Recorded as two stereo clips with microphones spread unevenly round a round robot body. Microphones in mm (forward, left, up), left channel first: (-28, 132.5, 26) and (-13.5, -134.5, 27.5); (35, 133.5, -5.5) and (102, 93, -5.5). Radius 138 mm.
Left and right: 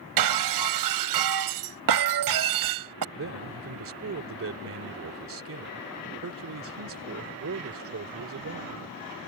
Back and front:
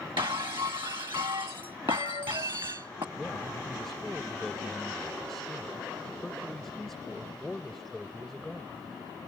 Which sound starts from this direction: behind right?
A man speaking, at 3.1 s.